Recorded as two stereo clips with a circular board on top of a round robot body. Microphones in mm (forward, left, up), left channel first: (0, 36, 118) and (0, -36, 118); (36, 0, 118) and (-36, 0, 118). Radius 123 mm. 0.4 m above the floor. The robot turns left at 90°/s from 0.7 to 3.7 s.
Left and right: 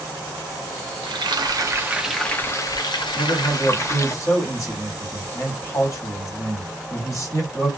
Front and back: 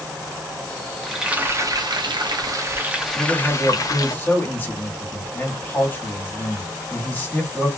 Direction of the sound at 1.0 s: 80° right.